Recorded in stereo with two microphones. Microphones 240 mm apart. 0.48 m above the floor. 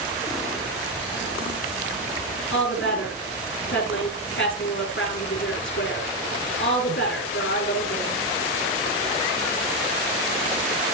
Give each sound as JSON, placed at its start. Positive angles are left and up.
{"t": 2.5, "sound": "a woman speaking", "side_deg": 60, "distance_m": 4.5}